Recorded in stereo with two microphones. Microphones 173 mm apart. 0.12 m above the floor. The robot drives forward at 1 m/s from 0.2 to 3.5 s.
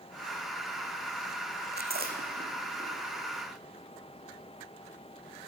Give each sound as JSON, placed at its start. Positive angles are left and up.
{"t": 1.7, "sound": "chewing", "side_deg": -85, "distance_m": 1.1}